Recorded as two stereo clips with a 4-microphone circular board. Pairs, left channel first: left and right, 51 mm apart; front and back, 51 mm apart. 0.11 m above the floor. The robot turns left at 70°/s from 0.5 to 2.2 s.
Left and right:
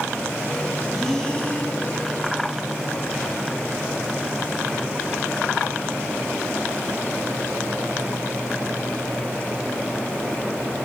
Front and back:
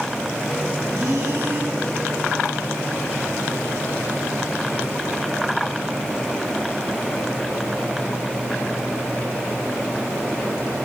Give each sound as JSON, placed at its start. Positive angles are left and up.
{"t": 0.9, "sound": "breathing", "azimuth_deg": -175, "distance_m": 6.0}